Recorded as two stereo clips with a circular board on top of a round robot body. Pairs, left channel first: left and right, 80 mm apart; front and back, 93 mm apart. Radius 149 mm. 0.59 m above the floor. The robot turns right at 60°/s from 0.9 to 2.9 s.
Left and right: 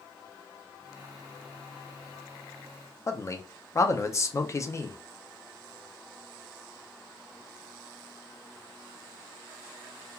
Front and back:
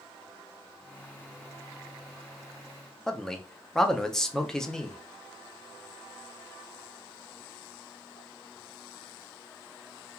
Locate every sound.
3.1 s a man speaking: 80° left, 0.6 m